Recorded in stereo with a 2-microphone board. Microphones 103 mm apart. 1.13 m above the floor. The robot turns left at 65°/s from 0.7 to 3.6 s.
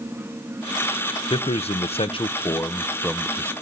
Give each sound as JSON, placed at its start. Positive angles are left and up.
{"t": 1.3, "sound": "a man speaking", "azimuth_deg": 120, "distance_m": 0.5}